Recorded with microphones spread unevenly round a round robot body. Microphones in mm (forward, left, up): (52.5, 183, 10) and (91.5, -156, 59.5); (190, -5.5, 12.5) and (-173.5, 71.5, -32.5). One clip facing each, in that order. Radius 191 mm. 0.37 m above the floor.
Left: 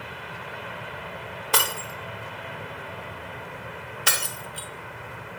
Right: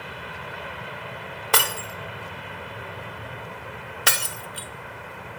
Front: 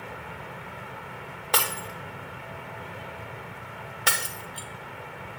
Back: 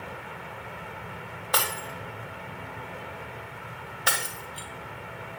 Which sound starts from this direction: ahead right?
Breaking glass, at 1.5 s.